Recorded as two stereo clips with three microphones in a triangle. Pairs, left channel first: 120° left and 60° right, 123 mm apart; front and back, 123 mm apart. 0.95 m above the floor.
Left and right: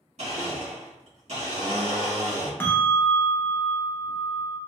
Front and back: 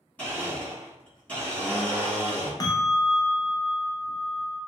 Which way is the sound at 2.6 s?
55° left.